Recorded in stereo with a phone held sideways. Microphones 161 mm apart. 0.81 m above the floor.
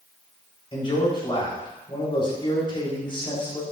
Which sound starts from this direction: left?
A man speaking, at 0.7 s.